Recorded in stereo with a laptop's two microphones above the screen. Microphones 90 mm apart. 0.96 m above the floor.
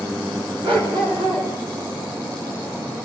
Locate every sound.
0.6 s a dog barking: 65° right (ahead or behind), 3.5 m